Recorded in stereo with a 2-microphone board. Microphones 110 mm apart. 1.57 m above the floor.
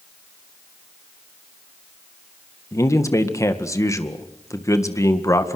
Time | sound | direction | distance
2.7 | a man speaking | 25° left (ahead or behind) | 1.9 m